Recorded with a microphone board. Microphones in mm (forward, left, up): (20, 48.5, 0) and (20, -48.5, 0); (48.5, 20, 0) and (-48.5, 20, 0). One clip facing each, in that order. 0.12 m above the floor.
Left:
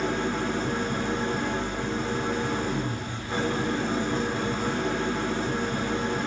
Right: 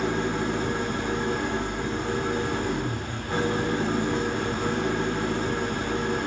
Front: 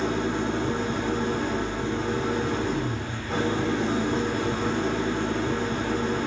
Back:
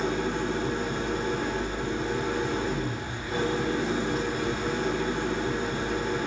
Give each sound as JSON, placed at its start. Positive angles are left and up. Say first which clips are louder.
{"t": 0.0, "sound": "an engine running", "louder": "right 1 dB, front 2 dB", "azimuth_deg": -15, "distance_m": 4.5}